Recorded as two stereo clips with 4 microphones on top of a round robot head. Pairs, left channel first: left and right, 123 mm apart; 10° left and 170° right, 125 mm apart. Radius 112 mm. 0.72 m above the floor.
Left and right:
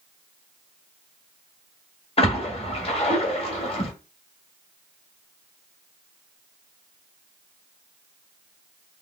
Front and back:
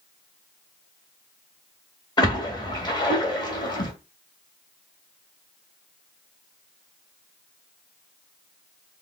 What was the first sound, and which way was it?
A splash, 60° left.